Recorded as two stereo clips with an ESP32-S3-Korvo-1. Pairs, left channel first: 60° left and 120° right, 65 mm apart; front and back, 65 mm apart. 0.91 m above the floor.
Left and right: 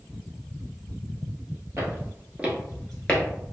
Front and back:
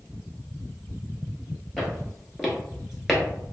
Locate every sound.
1.8 s footsteps: 90° right, 1.3 m; by 3.2 s 85° left, 0.9 m